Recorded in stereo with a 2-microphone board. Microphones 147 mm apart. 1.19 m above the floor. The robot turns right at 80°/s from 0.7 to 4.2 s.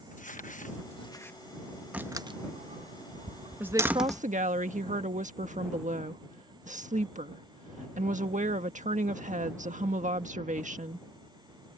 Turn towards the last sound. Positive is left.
turn(degrees=-120)